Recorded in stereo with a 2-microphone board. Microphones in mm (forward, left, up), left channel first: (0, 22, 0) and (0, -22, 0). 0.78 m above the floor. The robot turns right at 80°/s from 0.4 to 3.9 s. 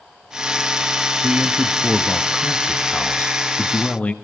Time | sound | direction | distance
1.2 | a man speaking | 85° right | 1.0 m